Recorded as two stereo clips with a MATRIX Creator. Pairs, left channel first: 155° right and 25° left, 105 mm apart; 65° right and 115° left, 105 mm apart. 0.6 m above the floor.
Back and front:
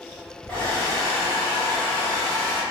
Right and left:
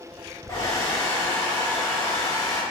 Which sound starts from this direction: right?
A hair dryer, at 0.5 s.